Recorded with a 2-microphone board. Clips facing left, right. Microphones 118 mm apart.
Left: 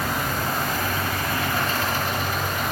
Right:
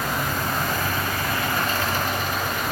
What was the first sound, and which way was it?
Only background noise.